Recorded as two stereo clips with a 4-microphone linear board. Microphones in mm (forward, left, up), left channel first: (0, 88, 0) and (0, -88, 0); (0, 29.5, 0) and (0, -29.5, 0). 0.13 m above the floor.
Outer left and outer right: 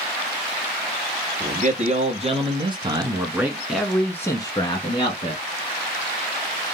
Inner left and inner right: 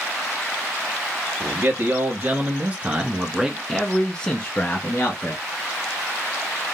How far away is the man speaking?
About 1.9 m.